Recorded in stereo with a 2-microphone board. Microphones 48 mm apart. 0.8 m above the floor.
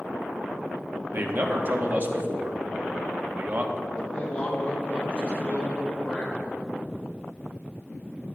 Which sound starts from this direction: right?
A man speaking, at 1.1 s.